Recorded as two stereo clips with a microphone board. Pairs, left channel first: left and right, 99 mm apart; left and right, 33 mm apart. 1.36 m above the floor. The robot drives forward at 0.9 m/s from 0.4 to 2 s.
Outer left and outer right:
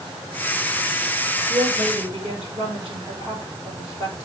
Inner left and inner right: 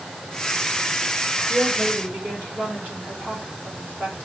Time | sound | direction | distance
1.5 | a woman speaking | 85° right | 7.5 m